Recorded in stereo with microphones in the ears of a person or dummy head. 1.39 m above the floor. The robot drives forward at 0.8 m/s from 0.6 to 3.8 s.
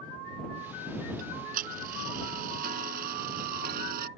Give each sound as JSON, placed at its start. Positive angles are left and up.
{"t": 1.2, "sound": "ticking", "side_deg": -50}